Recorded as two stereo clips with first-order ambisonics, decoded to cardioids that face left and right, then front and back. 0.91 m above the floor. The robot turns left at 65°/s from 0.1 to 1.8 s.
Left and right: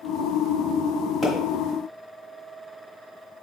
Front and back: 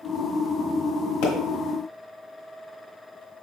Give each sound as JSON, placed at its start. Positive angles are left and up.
{"t": 1.2, "sound": "a pop", "azimuth_deg": 10, "distance_m": 1.5}